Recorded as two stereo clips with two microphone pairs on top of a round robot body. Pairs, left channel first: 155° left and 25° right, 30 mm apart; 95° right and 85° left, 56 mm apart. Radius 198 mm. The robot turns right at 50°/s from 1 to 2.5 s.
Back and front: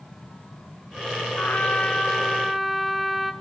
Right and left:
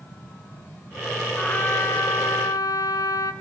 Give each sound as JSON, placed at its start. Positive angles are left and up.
{"t": 1.4, "sound": "a trumpet", "azimuth_deg": -170, "distance_m": 1.4}